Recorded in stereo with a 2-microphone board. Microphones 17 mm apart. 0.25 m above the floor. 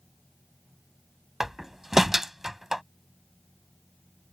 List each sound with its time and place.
1.4 s a door slam: 20° right (ahead or behind)